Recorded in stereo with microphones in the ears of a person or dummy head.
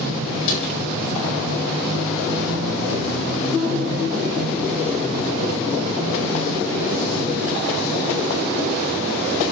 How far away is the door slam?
About 4.5 m.